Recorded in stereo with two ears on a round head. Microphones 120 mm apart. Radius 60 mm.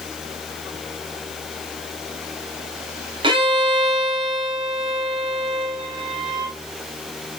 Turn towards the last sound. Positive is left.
turn(degrees=-35)  # may be behind; listen again after turning